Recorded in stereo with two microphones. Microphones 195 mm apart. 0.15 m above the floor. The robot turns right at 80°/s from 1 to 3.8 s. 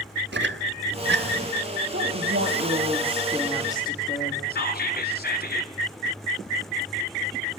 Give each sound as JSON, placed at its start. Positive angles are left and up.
{"t": 0.3, "sound": "a squeak", "side_deg": -65, "distance_m": 1.0}
{"t": 1.9, "sound": "a woman speaking", "azimuth_deg": -105, "distance_m": 6.0}
{"t": 4.5, "sound": "whispering", "side_deg": 55, "distance_m": 1.8}